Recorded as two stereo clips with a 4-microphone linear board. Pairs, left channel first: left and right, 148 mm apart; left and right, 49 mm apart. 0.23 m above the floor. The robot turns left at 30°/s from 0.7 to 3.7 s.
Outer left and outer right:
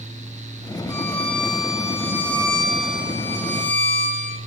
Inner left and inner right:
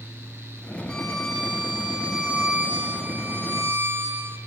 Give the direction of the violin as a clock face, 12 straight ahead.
11 o'clock.